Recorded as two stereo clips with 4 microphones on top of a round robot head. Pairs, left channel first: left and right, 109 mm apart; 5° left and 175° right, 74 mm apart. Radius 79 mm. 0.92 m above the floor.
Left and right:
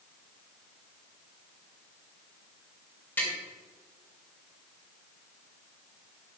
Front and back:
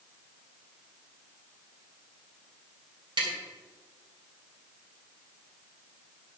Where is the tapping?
170° left, 3.5 m.